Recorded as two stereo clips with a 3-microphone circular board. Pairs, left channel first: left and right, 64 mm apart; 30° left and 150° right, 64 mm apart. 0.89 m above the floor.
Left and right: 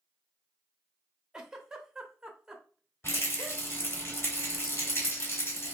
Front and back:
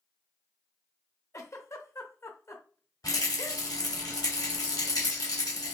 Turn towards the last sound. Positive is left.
turn(degrees=40)